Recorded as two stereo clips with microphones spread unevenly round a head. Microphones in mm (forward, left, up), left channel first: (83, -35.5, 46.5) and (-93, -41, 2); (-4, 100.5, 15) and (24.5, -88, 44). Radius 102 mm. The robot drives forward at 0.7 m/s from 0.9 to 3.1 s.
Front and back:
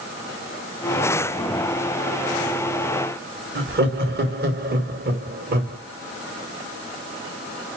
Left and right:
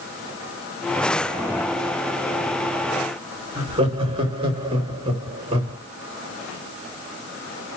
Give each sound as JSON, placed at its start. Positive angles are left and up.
{"t": 3.5, "sound": "laughter", "azimuth_deg": -145, "distance_m": 3.0}